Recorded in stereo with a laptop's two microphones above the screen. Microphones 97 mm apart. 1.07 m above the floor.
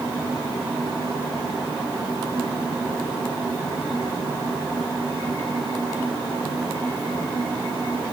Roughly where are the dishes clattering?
I don't hear dishes clattering.